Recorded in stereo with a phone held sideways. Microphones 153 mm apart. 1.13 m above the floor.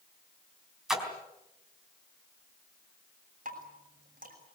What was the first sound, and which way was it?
A splash, 5° right (ahead or behind).